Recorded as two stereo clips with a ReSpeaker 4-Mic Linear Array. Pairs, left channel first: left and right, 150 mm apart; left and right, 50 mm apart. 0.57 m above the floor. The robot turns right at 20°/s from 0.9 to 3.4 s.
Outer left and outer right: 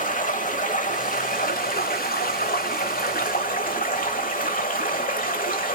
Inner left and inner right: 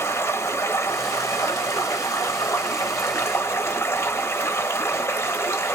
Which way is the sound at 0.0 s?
60° left.